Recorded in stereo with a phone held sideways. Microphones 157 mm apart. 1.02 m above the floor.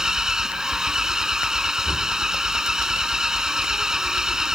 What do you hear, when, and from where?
0.0 s an engine running: 5° right (ahead or behind)